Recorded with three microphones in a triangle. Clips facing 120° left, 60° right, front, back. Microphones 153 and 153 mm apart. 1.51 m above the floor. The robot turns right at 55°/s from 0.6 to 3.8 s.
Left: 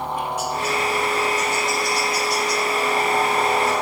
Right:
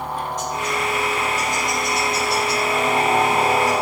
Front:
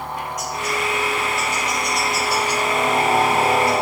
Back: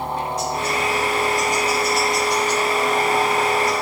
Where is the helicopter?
170° right; by 3.8 s 5° left.